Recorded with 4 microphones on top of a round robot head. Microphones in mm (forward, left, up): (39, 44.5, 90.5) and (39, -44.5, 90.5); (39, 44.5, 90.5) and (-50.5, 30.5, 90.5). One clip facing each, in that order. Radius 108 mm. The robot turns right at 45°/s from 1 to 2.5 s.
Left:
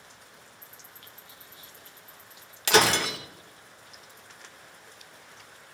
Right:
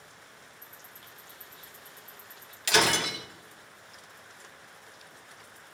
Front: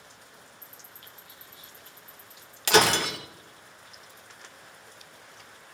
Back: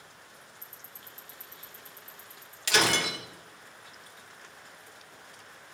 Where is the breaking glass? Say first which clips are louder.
Left 4 dB, front 5 dB; 50° left, 3 m.